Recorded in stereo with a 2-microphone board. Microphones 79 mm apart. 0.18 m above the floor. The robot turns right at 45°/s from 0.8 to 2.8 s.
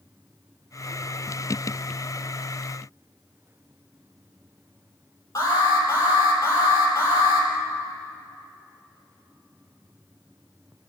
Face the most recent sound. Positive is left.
turn(degrees=45)  # may be behind; listen again after turning